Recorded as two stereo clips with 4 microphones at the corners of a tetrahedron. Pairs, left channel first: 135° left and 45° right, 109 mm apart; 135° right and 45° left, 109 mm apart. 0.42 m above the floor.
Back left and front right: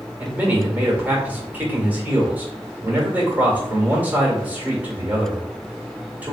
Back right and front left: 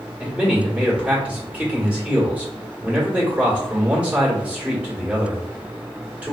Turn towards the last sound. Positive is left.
turn(degrees=-10)